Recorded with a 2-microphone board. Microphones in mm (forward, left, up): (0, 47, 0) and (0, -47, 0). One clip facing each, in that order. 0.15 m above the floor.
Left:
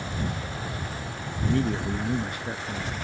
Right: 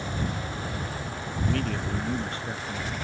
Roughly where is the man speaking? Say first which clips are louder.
Left 4 dB; left.